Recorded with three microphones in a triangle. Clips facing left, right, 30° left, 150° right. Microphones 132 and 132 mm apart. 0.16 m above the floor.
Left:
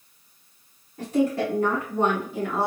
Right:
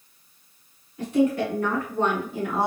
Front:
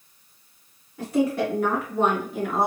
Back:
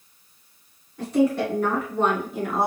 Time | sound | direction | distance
1.0 | a woman speaking | 110° left | 1.9 m